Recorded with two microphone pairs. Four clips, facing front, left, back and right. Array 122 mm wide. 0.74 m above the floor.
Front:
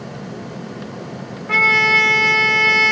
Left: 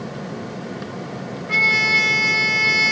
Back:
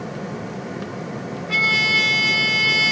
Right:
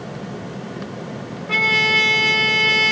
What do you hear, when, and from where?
1.5 s a trumpet: 20° right, 0.6 m